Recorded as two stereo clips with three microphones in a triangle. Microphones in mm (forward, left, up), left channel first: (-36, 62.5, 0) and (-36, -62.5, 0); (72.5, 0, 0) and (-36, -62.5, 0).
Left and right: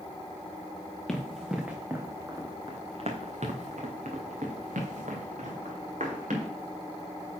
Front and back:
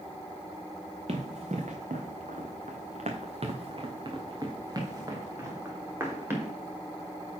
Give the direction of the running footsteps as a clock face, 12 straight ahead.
6 o'clock.